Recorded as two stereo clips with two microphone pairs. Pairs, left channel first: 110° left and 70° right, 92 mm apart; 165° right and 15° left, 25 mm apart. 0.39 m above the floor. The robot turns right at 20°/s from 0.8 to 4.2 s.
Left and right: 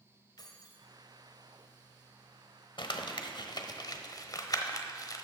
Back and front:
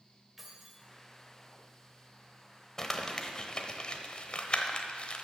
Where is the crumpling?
125° left, 0.9 m; by 5.2 s 150° left, 0.9 m.